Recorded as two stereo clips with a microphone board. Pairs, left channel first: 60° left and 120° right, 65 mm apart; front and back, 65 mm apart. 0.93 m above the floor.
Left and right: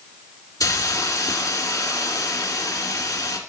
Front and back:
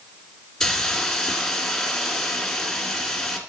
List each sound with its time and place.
0.6 s a hiss: 85° left, 1.6 m